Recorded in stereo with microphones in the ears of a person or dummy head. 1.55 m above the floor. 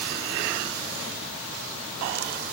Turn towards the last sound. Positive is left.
No sound to turn to.